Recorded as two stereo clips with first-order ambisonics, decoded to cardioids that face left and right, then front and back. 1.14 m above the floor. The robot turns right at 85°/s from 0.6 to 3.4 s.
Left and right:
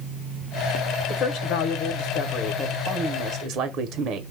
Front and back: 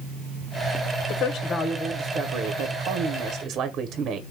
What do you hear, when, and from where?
1.1 s a woman speaking: 35° left, 0.6 m; by 4.2 s 130° right, 0.6 m